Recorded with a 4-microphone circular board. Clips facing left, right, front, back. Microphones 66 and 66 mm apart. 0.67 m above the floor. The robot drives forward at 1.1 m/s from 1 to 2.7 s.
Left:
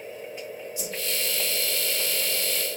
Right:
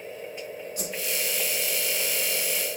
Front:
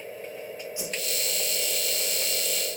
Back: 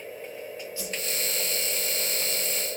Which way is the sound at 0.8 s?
70° right.